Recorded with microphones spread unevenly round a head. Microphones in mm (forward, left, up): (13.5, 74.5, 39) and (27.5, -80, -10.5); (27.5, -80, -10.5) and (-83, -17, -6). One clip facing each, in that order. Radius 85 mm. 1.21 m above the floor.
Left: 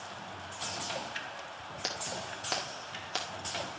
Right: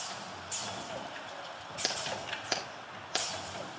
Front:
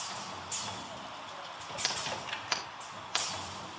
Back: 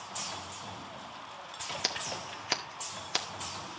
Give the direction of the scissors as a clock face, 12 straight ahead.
5 o'clock.